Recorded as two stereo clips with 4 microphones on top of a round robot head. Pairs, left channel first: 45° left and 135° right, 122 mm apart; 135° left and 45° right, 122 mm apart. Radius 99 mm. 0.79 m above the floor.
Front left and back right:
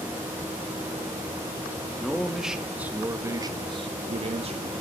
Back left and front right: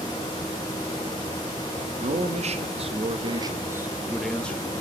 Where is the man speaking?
40° right, 2.0 m; by 4.7 s 150° right, 1.5 m.